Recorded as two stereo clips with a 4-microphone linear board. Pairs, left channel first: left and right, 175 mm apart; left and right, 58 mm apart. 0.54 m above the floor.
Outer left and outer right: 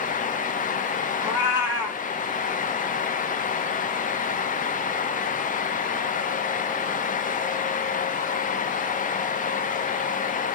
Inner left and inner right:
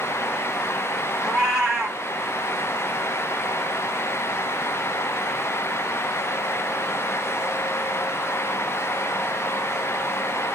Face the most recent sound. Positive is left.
turn(degrees=-15)  # may be behind; listen again after turning